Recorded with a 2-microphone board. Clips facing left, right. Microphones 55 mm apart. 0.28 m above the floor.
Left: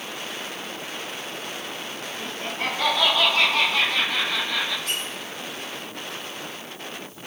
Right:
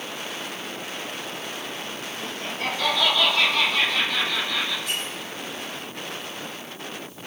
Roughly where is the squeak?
Left.